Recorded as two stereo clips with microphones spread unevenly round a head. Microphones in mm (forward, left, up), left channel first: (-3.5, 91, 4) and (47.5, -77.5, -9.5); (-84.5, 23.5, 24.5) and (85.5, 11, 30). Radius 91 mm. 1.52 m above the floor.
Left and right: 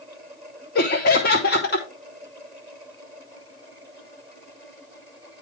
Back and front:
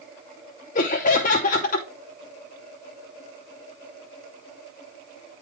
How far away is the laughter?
About 0.8 m.